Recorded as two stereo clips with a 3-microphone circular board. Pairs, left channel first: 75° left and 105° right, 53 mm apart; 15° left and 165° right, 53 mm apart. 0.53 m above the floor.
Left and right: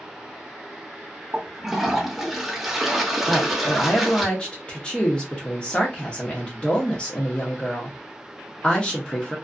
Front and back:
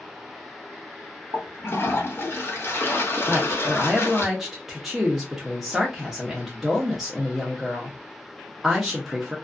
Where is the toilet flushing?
20° right, 0.7 m.